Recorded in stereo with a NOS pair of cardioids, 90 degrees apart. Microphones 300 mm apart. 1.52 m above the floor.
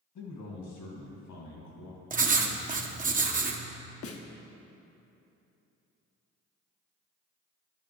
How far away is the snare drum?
About 0.9 m.